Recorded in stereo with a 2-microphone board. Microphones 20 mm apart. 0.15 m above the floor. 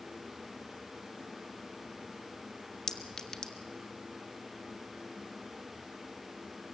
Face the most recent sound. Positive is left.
turn(degrees=30)  # may be behind; listen again after turning